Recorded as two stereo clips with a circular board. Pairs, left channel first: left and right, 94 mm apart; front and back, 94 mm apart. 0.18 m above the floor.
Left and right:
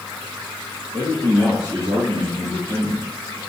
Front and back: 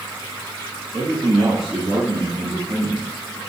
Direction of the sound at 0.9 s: 105° right.